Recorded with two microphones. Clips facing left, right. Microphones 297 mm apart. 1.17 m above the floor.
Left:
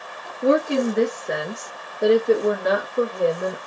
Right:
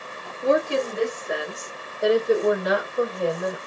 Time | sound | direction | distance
0.4 | a woman speaking | 75° left (ahead or behind) | 2.5 m